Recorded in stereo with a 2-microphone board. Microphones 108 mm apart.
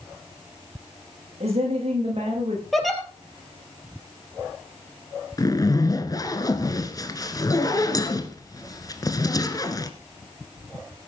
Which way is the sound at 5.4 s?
35° left (ahead or behind).